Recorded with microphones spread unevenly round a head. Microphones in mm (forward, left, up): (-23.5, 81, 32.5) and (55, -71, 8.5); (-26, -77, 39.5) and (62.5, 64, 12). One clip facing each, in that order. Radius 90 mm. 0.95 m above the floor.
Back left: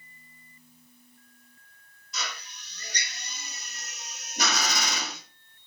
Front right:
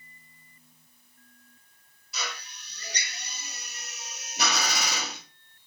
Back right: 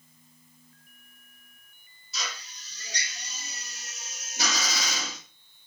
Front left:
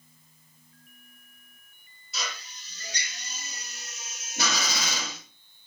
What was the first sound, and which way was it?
A drill, 20° left.